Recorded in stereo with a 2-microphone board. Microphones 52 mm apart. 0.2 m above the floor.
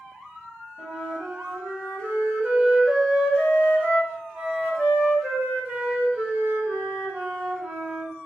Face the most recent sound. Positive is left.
turn(degrees=-25)  # may be behind; listen again after turning